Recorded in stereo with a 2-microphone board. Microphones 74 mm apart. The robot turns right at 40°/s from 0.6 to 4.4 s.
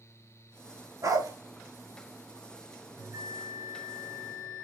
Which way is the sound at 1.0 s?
45° right (ahead or behind).